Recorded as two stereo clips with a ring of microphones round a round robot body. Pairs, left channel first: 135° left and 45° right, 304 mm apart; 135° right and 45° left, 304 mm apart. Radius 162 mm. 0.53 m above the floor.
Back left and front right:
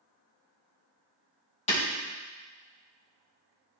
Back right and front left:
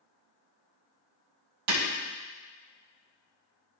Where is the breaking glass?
65° left, 3 m.